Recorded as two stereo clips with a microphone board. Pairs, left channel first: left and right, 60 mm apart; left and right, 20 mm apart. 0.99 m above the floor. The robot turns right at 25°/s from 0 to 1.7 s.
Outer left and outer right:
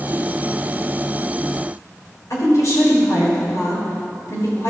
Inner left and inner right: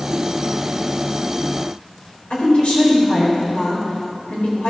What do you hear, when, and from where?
2.3 s a woman speaking: 60° left (ahead or behind), 3 m